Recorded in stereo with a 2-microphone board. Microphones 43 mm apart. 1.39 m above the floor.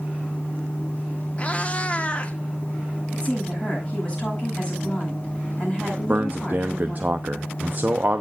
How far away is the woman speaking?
About 9 m.